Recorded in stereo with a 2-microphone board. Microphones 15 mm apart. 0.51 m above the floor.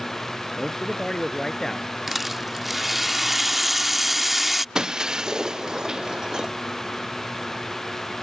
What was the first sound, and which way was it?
A man speaking, 35° left (ahead or behind).